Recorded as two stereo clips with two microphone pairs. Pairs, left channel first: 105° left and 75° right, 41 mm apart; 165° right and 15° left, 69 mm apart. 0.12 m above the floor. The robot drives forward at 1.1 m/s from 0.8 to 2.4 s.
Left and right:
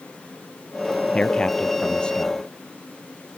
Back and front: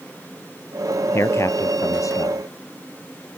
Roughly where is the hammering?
I don't hear hammering.